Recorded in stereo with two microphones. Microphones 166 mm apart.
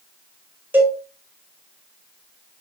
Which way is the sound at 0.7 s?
10° right (ahead or behind).